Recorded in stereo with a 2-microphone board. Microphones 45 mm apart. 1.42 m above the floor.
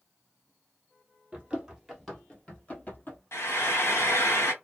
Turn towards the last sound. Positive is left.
turn(degrees=80)